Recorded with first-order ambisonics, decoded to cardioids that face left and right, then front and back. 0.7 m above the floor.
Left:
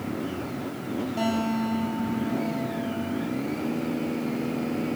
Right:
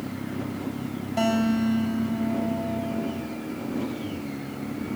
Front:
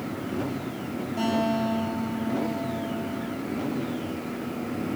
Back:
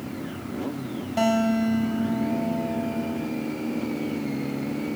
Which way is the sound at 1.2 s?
150° right.